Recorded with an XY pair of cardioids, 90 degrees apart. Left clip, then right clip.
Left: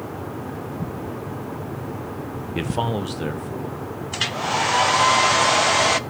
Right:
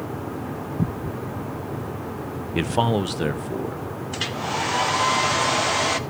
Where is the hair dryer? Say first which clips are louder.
Left 4 dB; 35° left, 0.5 m.